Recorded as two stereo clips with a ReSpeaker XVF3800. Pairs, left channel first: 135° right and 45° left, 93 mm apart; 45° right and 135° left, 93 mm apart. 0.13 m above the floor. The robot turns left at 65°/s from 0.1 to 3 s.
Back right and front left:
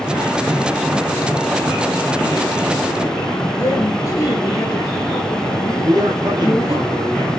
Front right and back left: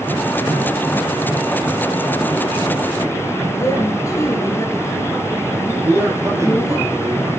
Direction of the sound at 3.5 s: 95° right.